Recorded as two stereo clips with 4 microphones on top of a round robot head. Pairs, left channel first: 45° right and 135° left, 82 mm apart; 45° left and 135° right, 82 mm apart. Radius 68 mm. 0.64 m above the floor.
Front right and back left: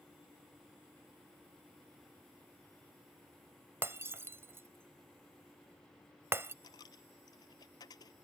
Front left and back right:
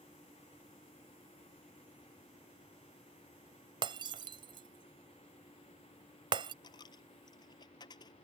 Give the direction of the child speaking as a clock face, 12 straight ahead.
I don't hear a child speaking.